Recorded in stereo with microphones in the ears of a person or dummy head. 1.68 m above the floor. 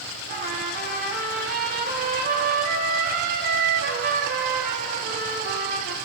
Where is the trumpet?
45° right (ahead or behind), 1.9 m.